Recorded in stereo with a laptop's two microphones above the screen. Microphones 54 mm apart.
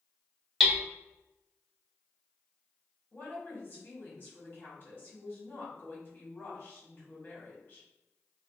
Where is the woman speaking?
40° left (ahead or behind), 1.5 m.